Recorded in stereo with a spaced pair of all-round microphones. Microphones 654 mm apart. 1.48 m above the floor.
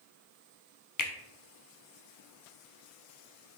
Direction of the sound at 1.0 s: 35° left (ahead or behind).